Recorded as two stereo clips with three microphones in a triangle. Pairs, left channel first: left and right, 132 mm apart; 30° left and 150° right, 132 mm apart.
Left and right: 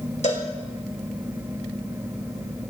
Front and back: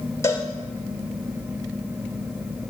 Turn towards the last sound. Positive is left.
turn(degrees=95)